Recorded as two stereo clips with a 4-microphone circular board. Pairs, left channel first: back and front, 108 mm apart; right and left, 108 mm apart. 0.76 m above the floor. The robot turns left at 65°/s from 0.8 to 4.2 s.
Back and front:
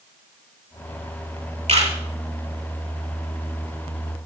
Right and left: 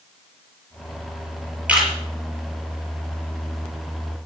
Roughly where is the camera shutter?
Ahead.